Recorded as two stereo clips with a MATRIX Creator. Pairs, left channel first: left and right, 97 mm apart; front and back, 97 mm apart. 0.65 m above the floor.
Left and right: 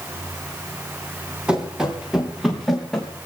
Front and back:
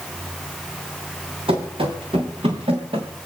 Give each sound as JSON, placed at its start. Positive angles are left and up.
{"t": 1.5, "sound": "running footsteps", "azimuth_deg": -170, "distance_m": 4.0}